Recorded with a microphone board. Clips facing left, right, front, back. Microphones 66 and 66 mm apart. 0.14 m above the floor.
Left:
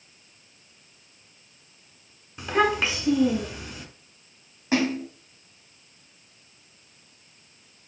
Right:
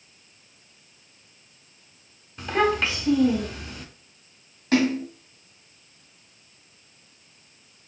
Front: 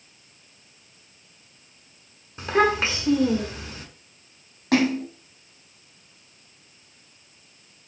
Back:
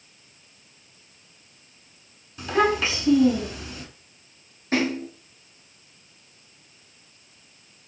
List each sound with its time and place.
2.4 s a child speaking: 15° left, 0.8 m
4.7 s a splash: 15° left, 1.0 m